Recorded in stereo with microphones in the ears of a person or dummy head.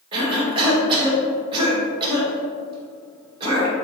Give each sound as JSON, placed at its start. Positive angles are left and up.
{"t": 0.1, "sound": "a cough", "side_deg": -20, "distance_m": 1.6}